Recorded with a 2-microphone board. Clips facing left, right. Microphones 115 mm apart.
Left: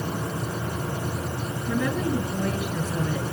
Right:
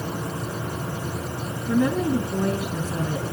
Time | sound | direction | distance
1.7 | a woman speaking | 30° right (ahead or behind) | 4 m